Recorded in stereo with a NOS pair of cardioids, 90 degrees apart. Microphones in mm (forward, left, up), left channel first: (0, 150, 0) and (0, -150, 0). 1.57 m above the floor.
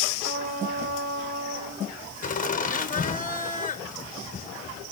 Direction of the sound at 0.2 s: 50° right.